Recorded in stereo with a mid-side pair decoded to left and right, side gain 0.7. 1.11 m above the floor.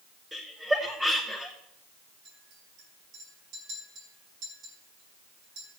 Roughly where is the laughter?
Ahead.